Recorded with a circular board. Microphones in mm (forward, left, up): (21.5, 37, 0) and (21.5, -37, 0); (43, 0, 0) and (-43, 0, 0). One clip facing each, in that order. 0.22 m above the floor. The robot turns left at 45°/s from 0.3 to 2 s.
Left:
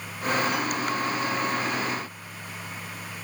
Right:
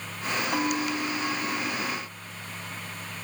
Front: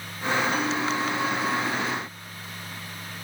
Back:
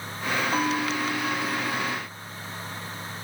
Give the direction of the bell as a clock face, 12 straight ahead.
4 o'clock.